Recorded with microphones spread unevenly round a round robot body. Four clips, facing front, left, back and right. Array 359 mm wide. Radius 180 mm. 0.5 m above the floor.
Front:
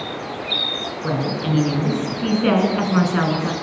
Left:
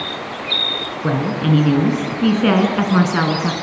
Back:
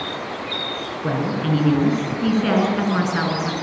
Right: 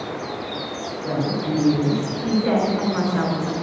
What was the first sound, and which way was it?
A woman speaking, 105° left.